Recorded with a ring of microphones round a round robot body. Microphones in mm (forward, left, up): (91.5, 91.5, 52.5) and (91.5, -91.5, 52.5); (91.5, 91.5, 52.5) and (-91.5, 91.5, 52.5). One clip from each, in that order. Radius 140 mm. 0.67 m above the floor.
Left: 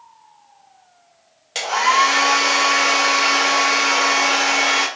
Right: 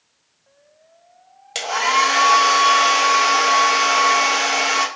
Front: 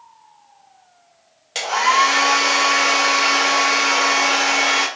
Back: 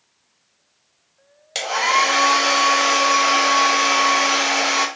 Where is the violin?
No violin in this recording.